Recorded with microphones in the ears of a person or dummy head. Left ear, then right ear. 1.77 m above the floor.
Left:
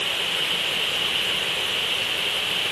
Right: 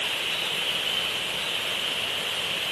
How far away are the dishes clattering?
No dishes clattering in this recording.